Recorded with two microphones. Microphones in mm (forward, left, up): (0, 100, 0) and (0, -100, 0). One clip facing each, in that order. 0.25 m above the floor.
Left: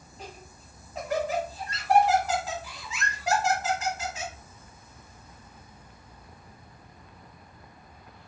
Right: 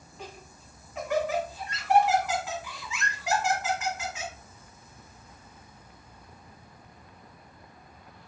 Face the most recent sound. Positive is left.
turn(degrees=35)  # may be behind; listen again after turning